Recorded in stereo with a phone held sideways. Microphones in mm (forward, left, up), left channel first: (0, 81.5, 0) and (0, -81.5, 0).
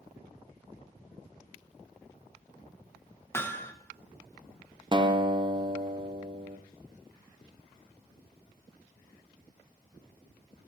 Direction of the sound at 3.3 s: 15° left (ahead or behind).